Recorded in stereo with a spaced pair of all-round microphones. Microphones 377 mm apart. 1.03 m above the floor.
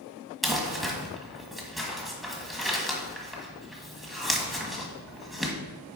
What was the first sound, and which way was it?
Crumpling, centre (ahead or behind).